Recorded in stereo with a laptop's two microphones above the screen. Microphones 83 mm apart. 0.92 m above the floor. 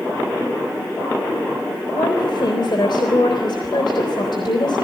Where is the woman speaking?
70° left (ahead or behind), 3.5 m.